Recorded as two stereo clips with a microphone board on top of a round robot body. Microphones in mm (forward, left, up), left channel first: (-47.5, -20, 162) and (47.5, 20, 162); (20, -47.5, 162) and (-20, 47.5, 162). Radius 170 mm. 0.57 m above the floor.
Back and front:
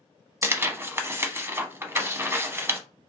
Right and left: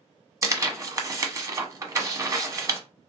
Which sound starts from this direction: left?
Tearing paper, at 0.4 s.